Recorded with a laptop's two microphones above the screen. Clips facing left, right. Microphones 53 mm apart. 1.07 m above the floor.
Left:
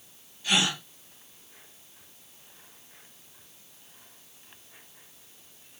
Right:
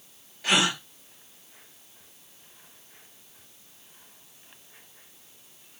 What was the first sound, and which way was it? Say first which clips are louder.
A gasp: right 3 dB; 85° right.